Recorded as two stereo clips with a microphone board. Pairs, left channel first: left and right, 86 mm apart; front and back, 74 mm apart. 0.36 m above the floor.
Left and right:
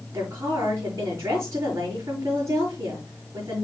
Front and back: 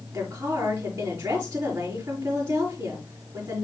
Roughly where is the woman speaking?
Behind right.